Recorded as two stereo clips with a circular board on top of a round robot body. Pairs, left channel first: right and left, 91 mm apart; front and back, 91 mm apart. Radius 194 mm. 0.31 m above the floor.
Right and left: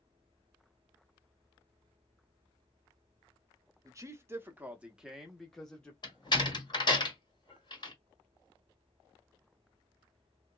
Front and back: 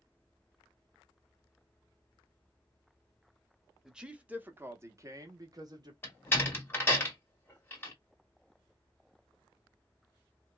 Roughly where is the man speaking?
Left.